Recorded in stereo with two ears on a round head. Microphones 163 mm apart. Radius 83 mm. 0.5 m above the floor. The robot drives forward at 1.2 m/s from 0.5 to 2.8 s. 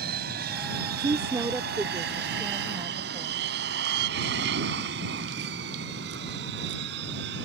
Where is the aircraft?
50° right (ahead or behind); by 7.4 s 60° right (ahead or behind).